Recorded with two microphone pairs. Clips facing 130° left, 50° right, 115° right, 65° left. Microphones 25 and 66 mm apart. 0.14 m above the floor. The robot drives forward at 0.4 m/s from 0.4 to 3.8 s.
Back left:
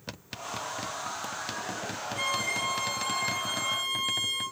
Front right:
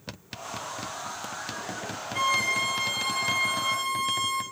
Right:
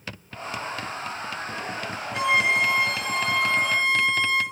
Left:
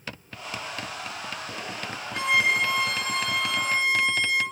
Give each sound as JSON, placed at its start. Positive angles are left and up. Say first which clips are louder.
{"t": 2.1, "sound": "a violin", "louder": "front right 6 dB, right 2 dB", "azimuth_deg": -45, "distance_m": 1.7}